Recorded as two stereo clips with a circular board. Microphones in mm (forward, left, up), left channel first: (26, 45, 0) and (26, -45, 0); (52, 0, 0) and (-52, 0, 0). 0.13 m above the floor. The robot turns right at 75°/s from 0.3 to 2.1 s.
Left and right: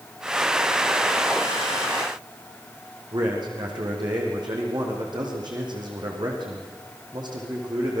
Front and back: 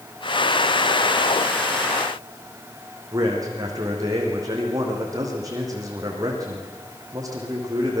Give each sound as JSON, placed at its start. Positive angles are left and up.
{"t": 3.1, "sound": "a man speaking", "azimuth_deg": -125, "distance_m": 6.5}